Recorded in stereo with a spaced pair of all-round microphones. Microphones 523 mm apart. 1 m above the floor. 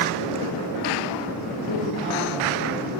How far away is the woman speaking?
About 3 m.